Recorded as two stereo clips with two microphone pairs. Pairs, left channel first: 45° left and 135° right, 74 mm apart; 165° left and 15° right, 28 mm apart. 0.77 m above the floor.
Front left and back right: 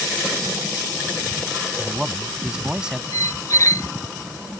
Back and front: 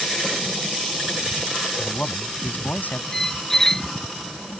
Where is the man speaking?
150° left.